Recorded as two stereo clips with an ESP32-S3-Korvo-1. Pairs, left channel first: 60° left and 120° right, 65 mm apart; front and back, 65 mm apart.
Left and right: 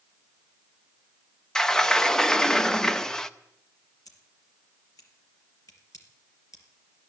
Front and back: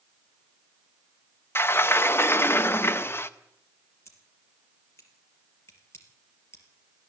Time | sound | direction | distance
1.6 | a sliding door | 15° right | 0.6 m
4.0 | scissors | 40° left | 4 m